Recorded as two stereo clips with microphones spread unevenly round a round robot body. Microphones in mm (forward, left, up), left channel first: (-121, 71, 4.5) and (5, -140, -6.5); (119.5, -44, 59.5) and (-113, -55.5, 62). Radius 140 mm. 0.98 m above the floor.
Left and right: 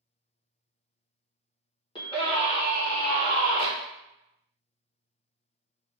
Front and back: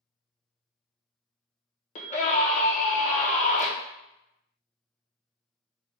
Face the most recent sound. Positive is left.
turn(degrees=50)